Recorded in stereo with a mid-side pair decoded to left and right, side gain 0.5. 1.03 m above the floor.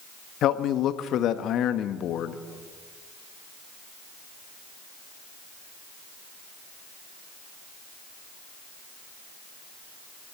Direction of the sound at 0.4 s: 65° left.